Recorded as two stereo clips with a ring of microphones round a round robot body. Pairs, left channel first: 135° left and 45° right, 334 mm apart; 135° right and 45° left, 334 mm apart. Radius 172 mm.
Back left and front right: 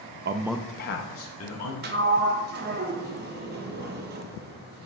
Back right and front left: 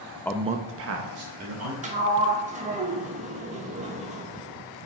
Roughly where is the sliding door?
Ahead.